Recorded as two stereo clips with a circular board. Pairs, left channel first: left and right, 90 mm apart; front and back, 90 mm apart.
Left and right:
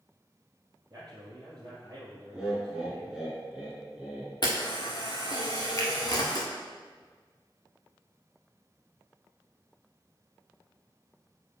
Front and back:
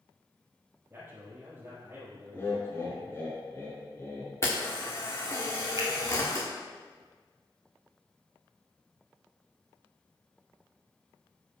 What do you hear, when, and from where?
0.9 s a man speaking: 130° right, 1.5 m
2.3 s laughter: 15° right, 1.7 m
4.4 s a camera shutter: 55° left, 1.5 m
5.8 s a finger snap: 140° left, 1.7 m